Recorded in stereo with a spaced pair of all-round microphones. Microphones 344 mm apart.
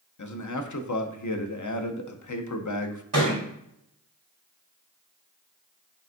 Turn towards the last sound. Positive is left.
turn(degrees=-60)  # may be behind; listen again after turning